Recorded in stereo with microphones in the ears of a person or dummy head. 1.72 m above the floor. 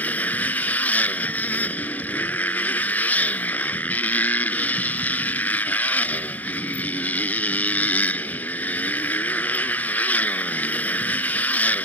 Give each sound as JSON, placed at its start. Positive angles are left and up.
{"t": 0.0, "sound": "a motorcycle", "side_deg": 10}